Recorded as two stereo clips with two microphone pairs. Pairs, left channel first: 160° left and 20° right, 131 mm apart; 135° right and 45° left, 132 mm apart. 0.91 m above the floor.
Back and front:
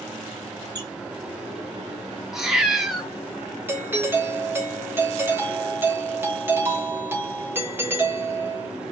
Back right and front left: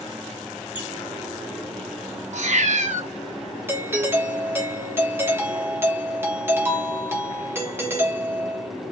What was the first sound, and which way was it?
A squeak, 80° right.